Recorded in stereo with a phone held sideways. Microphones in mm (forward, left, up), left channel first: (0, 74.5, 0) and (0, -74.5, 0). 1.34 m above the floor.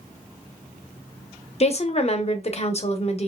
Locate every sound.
1.6 s a woman speaking: 45° left (ahead or behind), 0.6 m